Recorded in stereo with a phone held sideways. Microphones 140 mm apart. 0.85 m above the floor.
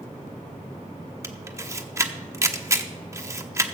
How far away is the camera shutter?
About 0.8 m.